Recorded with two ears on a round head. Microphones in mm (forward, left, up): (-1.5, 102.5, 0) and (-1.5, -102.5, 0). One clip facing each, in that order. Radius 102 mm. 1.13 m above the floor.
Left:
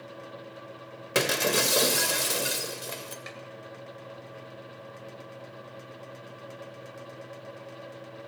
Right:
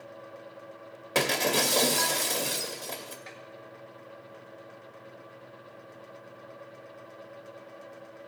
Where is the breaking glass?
10° left (ahead or behind), 0.9 m.